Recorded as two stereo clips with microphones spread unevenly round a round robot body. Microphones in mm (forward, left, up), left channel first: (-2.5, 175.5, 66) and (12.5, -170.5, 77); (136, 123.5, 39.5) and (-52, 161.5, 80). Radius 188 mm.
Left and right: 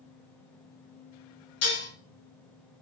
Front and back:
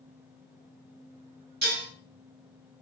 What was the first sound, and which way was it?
Dishes clattering, 135° left.